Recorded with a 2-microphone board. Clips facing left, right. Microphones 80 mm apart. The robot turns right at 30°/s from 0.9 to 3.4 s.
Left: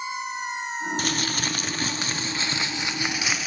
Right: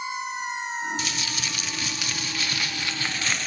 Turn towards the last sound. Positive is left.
turn(degrees=170)